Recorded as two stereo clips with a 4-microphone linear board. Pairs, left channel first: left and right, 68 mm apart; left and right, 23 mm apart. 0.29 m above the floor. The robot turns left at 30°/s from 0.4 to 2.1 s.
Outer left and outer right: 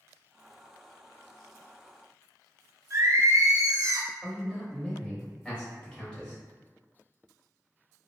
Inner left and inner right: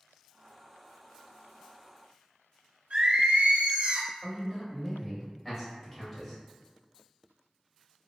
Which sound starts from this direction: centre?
A man speaking, at 4.2 s.